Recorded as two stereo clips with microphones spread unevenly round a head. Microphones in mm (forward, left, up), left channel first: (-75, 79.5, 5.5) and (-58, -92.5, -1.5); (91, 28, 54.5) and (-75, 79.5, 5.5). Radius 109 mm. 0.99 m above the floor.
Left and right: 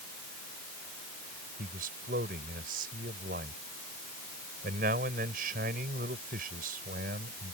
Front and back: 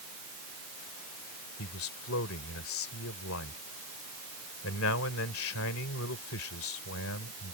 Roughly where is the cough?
No cough in this recording.